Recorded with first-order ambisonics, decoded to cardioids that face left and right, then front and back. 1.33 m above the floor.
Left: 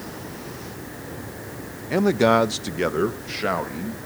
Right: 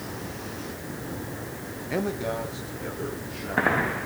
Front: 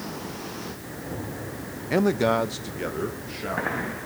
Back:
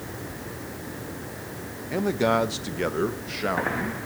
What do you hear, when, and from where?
1.9 s a man speaking: 20° left, 0.5 m; by 4.1 s 110° left, 3.5 m